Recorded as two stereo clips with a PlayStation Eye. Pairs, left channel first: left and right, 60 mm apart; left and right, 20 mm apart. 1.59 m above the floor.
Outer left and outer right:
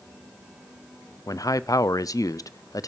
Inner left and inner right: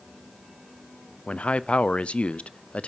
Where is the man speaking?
75° left (ahead or behind), 0.6 m.